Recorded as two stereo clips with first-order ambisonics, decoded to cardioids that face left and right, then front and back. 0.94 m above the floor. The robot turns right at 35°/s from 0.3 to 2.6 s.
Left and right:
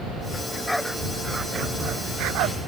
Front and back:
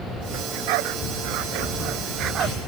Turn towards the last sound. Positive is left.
turn(degrees=-115)